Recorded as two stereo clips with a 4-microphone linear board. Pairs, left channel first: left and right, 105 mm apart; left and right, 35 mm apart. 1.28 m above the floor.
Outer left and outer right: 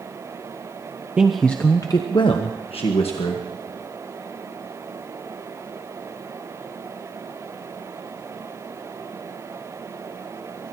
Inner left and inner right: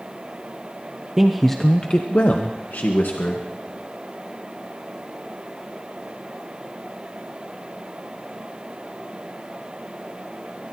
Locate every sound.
1.2 s a man speaking: 10° right (ahead or behind), 0.8 m; by 3.5 s 75° left (ahead or behind), 2 m